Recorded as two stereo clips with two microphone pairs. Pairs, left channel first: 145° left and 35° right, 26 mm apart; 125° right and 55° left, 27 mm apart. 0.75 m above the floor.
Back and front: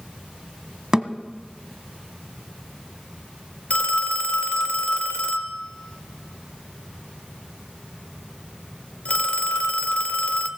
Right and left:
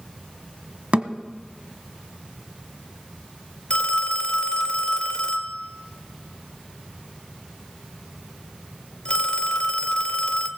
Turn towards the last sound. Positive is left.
turn(degrees=-175)